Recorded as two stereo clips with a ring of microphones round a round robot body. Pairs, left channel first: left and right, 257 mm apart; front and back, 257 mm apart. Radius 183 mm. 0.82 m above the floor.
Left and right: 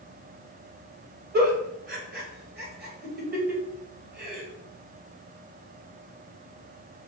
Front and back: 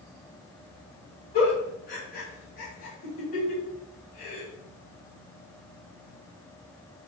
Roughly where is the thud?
No thud in this recording.